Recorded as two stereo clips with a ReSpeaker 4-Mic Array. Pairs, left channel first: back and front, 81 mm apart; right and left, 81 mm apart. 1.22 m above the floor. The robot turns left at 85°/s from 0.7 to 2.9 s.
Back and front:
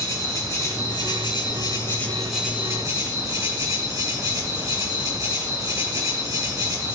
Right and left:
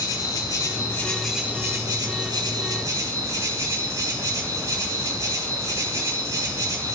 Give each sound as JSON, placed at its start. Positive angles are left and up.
{"t": 0.0, "sound": "an insect", "azimuth_deg": -135, "distance_m": 4.5}